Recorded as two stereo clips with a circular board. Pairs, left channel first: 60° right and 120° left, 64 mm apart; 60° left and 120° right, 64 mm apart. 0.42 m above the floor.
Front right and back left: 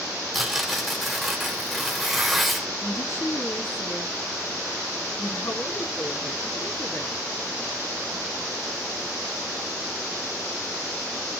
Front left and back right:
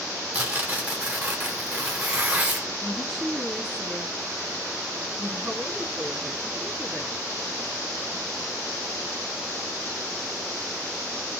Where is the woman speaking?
35° right, 3.5 m.